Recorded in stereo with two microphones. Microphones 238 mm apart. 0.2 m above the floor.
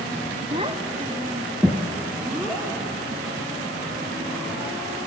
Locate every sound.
0.5 s a child speaking: 25° right (ahead or behind), 0.8 m; by 4.7 s centre (ahead or behind), 6.5 m